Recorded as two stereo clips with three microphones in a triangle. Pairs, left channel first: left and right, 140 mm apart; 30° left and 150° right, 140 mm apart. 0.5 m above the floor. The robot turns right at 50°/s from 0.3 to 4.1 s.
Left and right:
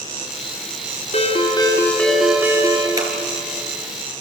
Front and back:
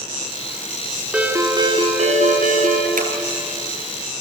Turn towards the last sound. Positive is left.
turn(degrees=-100)